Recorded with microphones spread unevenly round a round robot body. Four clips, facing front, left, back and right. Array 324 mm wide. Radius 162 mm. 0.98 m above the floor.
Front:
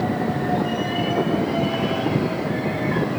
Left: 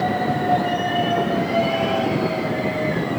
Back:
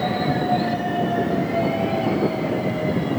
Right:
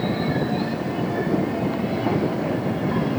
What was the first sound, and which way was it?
Only background noise.